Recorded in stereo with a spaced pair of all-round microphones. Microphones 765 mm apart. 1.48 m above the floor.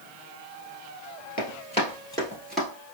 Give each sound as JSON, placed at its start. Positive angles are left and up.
{"t": 1.4, "sound": "running footsteps", "side_deg": 10, "distance_m": 1.7}